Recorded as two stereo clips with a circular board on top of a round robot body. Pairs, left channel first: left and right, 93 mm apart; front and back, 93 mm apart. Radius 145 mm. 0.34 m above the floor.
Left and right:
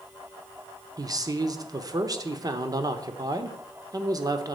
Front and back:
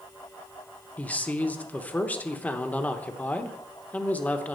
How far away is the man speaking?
About 1.1 m.